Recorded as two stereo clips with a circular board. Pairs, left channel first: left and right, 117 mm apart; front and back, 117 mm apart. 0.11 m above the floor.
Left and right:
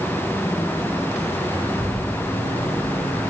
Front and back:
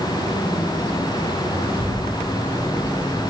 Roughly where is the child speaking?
Ahead.